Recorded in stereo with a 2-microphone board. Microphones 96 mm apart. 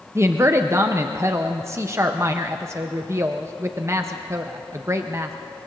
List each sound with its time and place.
0.1 s a woman speaking: 30° right (ahead or behind), 0.7 m